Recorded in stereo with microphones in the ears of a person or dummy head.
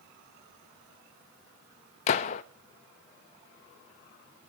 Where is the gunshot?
45° left (ahead or behind), 0.8 m.